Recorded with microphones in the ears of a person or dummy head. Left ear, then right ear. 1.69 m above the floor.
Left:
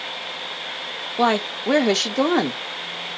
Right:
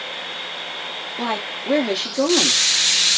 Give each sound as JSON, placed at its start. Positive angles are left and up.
{"t": 1.2, "sound": "a woman speaking", "side_deg": 40, "distance_m": 1.1}